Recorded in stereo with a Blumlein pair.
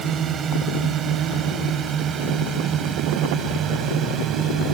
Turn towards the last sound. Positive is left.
turn(degrees=-25)